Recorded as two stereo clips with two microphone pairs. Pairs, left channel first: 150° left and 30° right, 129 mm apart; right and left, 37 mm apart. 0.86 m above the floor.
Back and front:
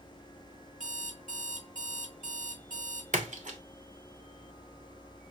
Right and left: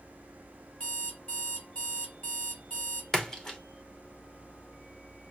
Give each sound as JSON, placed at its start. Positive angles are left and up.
{"t": 0.8, "sound": "an alarm clock", "azimuth_deg": -40, "distance_m": 2.0}
{"t": 3.1, "sound": "a splash", "azimuth_deg": -20, "distance_m": 0.9}